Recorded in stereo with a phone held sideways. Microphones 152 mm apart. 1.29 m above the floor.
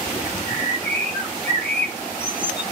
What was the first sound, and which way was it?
A bird, 65° right (ahead or behind).